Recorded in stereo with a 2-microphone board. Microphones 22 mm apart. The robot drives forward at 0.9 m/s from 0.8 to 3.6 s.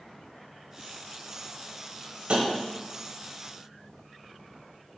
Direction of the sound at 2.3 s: 55° right (ahead or behind).